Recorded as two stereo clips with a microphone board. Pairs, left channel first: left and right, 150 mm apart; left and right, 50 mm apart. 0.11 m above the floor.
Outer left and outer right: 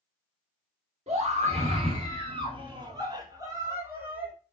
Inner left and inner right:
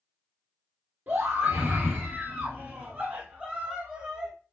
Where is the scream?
45° right (ahead or behind), 1.9 m; by 4.3 s 10° right (ahead or behind), 1.6 m.